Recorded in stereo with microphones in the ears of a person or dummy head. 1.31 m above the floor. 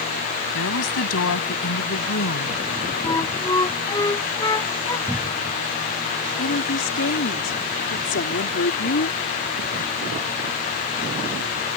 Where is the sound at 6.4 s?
55° left (ahead or behind).